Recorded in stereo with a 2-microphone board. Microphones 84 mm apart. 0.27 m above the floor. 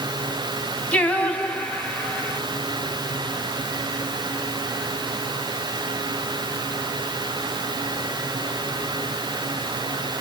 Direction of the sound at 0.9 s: 15° left (ahead or behind).